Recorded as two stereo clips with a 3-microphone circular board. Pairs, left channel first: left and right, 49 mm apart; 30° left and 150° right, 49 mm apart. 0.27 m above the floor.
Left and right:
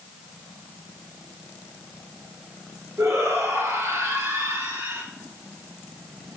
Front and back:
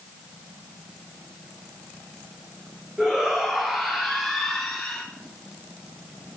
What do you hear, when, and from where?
3.0 s a shout: 75° right, 4.5 m; by 5.0 s 55° right, 4.5 m